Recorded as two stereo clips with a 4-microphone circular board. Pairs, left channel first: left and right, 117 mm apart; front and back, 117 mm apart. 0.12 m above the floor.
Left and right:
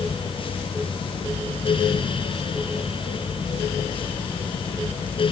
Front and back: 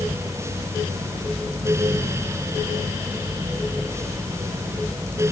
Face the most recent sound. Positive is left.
No sound to turn to.